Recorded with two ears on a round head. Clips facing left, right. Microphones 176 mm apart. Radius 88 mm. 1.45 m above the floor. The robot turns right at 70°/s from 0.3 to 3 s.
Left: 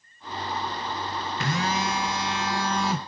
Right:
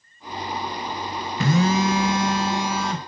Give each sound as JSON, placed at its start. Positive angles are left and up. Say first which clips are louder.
{"t": 1.4, "sound": "a phone buzzing", "louder": "right 9 dB", "azimuth_deg": -100, "distance_m": 1.3}